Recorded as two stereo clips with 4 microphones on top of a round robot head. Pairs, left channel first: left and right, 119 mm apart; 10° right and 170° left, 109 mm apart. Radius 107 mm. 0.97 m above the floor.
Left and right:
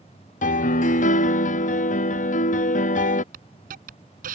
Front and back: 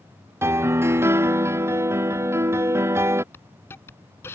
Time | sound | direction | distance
0.4 | a piano | 100° left | ?
3.3 | a hiss | 85° right | ?